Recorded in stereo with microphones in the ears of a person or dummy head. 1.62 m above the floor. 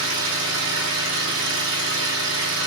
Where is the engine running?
60° right (ahead or behind), 2 m.